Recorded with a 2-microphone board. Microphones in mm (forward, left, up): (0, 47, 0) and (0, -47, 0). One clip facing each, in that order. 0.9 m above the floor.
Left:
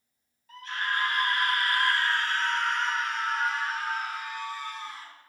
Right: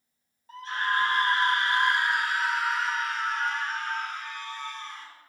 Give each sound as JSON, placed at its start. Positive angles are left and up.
{"t": 0.5, "sound": "a scream", "side_deg": -30, "distance_m": 1.4}